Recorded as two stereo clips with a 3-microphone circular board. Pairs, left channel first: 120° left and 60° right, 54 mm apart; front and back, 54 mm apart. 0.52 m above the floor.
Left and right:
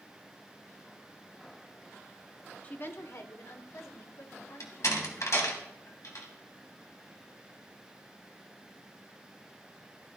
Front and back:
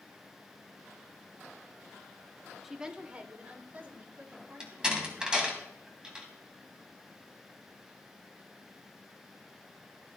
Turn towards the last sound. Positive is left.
turn(degrees=105)